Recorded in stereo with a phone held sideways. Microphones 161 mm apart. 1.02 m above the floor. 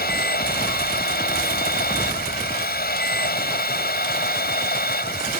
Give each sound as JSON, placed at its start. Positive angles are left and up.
{"t": 0.0, "sound": "a machine running", "side_deg": 70}